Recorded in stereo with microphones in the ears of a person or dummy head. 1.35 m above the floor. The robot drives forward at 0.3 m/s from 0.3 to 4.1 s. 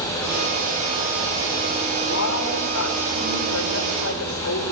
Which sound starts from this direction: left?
A woman speaking, at 2.0 s.